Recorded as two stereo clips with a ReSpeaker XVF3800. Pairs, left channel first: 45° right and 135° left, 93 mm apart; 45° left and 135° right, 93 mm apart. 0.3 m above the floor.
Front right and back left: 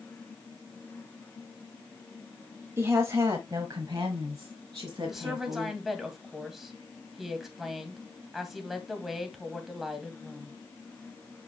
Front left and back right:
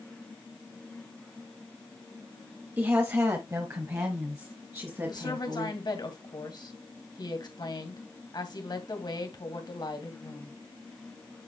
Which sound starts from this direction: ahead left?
A woman speaking, at 5.1 s.